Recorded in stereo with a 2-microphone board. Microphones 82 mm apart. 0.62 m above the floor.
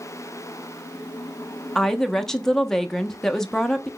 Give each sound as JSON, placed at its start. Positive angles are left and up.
{"t": 1.8, "sound": "a woman speaking", "side_deg": 5, "distance_m": 0.5}